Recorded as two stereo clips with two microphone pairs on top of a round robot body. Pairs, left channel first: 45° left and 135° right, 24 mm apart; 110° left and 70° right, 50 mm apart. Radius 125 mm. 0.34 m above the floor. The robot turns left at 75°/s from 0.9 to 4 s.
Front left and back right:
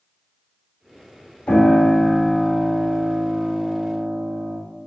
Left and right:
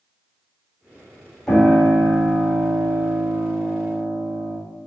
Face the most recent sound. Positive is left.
turn(degrees=-160)